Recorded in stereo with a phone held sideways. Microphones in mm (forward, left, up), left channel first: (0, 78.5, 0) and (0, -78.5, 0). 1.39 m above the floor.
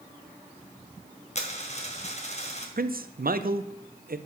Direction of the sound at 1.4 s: 45° left (ahead or behind).